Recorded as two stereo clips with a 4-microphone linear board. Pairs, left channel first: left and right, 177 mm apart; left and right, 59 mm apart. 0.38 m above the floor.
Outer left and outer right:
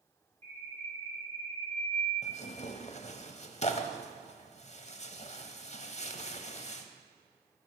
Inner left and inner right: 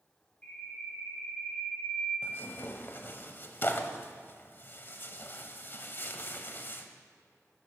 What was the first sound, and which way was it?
A bird, 15° left (ahead or behind).